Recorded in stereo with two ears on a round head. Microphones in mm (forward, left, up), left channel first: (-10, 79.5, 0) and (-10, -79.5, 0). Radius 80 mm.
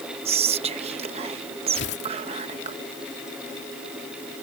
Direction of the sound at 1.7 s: 65° left (ahead or behind).